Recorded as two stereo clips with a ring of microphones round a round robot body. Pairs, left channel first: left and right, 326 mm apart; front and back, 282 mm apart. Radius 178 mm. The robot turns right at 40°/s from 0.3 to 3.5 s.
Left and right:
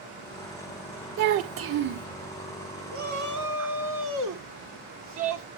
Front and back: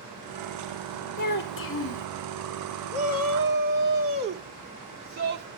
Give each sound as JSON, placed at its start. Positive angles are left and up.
{"t": 1.2, "sound": "a child speaking", "azimuth_deg": -60, "distance_m": 0.6}
{"t": 2.9, "sound": "a shout", "azimuth_deg": -145, "distance_m": 2.5}